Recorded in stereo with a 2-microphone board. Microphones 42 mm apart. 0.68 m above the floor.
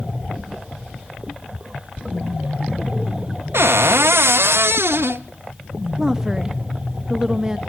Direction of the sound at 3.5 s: 85° right.